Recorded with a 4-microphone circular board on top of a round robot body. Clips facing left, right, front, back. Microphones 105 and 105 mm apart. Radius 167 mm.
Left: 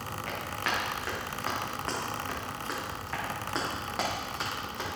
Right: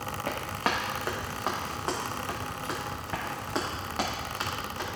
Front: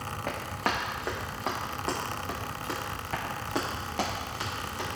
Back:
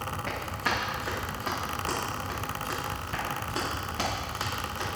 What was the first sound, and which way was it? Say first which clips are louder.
Running footsteps: right 4 dB, front 2 dB; 45° right.